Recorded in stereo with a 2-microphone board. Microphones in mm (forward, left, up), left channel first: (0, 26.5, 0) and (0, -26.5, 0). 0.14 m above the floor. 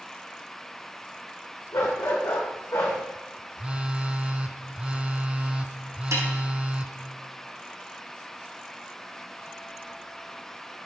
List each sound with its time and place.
1.7 s a dog barking: 85° left, 4.5 m; by 3.0 s 65° left (ahead or behind), 3.5 m
3.6 s a phone buzzing: 20° right (ahead or behind), 0.6 m
6.1 s a snare drum: 75° right (ahead or behind), 3.5 m